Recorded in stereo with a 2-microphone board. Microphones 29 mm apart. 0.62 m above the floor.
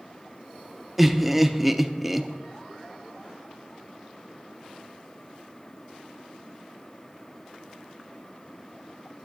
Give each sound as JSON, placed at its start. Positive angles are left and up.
{"t": 1.0, "sound": "laughter", "side_deg": -10, "distance_m": 0.7}